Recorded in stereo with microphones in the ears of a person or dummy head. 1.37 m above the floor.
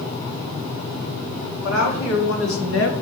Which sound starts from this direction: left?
A woman speaking, at 1.6 s.